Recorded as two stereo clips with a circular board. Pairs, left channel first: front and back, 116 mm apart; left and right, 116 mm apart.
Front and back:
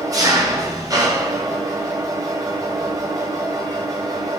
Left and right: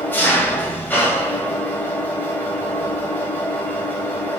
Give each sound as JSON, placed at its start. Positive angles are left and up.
{"t": 0.0, "sound": "an engine running", "azimuth_deg": 150, "distance_m": 1.4}